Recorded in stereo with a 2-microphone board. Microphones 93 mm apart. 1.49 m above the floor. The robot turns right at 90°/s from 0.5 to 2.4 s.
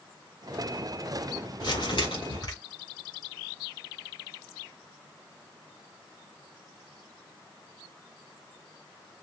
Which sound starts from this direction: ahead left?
Crumpling, at 1.6 s.